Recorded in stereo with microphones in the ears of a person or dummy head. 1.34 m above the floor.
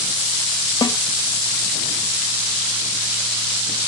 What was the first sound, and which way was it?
A snare drum, 20° left (ahead or behind).